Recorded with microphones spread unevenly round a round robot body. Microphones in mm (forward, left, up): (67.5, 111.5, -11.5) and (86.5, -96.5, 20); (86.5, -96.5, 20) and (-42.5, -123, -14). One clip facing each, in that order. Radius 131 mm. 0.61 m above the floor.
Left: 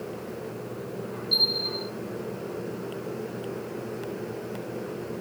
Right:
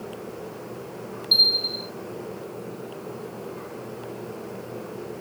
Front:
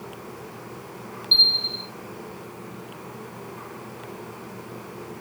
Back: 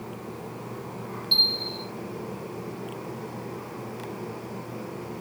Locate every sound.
1.3 s a bell: 125° right, 1.1 m